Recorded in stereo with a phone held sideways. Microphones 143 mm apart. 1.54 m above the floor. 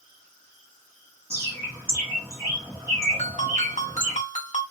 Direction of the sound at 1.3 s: 15° right (ahead or behind).